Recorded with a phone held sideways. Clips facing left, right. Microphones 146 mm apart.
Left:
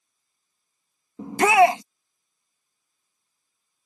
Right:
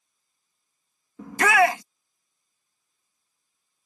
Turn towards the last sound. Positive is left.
turn(degrees=25)  # may be behind; listen again after turning